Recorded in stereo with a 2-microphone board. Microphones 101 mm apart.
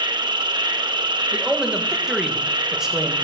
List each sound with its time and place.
0.0 s an insect: 50° right (ahead or behind), 0.8 m
1.3 s a man speaking: 5° right (ahead or behind), 1.4 m